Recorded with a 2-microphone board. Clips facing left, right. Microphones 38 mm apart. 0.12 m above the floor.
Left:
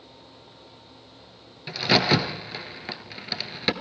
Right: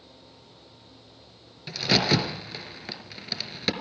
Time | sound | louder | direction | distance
1.7 | a crack | left 2 dB | 15° left (ahead or behind) | 1.2 m